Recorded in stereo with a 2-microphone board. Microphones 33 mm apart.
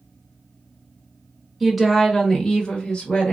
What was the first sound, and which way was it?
A woman speaking, 10° right (ahead or behind).